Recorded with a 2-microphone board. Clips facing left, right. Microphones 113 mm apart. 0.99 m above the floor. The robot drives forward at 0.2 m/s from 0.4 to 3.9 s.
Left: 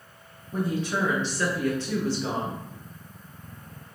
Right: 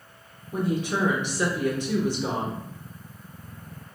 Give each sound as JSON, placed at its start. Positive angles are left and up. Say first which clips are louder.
{"t": 0.5, "sound": "a woman speaking", "louder": "right 1 dB", "side_deg": -15, "distance_m": 0.6}